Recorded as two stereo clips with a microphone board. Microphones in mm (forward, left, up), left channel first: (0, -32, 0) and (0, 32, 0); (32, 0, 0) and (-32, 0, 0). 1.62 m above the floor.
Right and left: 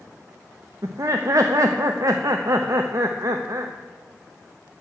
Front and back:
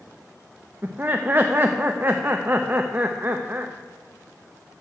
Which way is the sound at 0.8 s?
120° left.